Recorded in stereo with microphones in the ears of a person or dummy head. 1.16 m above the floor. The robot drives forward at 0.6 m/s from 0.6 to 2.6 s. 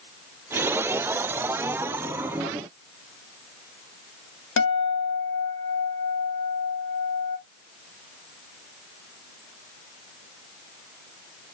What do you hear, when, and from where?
4.6 s a guitar: 60° left (ahead or behind), 0.8 m